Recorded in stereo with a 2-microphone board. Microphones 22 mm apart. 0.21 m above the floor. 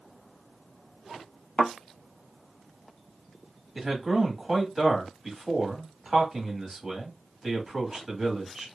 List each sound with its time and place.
1.6 s a thud: 55° left (ahead or behind), 0.9 m
3.8 s a man speaking: 5° right (ahead or behind), 1.2 m